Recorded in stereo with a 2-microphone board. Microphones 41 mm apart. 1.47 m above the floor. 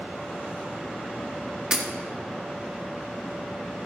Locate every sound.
1.7 s breaking glass: 20° right (ahead or behind), 1.3 m